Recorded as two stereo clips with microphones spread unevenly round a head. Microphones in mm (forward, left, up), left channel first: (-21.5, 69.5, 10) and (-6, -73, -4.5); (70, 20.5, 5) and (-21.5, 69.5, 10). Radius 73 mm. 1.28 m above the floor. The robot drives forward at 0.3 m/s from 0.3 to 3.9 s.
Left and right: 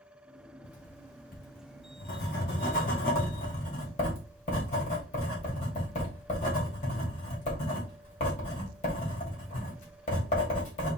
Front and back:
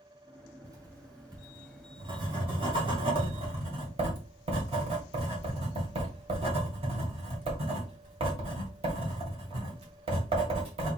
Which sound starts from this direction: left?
Writing, at 0.6 s.